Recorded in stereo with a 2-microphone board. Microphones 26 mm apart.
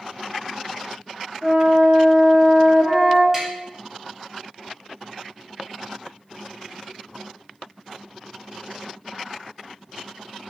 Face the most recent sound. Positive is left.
turn(degrees=-5)  # may be behind; listen again after turning